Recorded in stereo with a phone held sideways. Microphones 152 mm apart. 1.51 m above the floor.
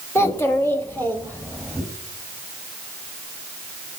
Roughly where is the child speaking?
Centre.